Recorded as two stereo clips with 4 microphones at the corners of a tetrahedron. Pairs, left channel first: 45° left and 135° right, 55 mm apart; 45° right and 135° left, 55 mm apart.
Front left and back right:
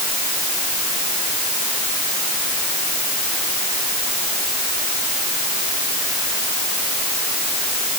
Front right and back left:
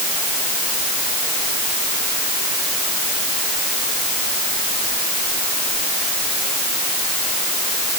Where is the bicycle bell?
No bicycle bell in this recording.